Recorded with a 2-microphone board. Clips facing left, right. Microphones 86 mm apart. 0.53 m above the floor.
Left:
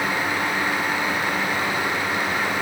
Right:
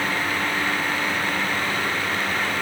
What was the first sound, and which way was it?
Only background noise.